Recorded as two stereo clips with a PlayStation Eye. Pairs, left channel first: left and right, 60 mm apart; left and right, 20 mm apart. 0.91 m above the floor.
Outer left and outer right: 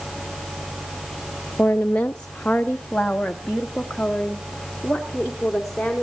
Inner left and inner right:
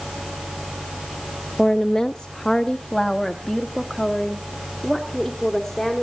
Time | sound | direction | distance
1.6 | a woman speaking | 30° left (ahead or behind) | 0.6 m